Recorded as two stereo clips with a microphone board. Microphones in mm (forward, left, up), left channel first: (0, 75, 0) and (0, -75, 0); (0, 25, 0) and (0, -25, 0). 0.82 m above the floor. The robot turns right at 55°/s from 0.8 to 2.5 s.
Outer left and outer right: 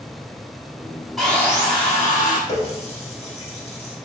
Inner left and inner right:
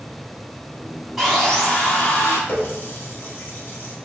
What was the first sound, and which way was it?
Sawing, straight ahead.